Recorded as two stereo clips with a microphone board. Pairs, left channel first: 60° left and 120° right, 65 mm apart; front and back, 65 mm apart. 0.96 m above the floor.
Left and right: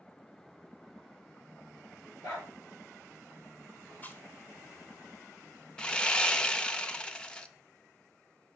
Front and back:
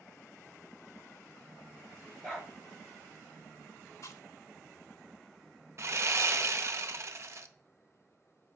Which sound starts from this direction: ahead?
Chewing, at 4.0 s.